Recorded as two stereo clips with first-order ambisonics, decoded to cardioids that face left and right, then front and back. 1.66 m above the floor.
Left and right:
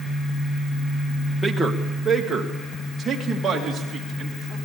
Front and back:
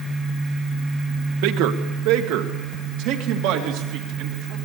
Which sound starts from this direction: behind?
A man speaking, at 1.4 s.